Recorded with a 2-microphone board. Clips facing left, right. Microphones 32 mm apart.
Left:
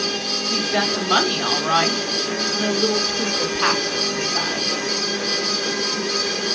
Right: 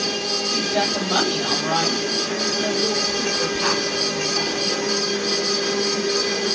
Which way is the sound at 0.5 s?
35° left (ahead or behind).